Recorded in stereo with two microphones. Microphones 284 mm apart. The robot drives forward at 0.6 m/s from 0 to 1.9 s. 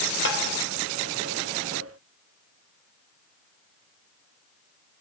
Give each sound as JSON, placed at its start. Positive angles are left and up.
{"t": 0.2, "sound": "tapping", "side_deg": 45, "distance_m": 4.0}